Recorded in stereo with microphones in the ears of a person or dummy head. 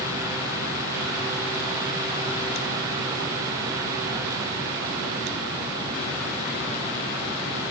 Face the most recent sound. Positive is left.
No sound to turn to.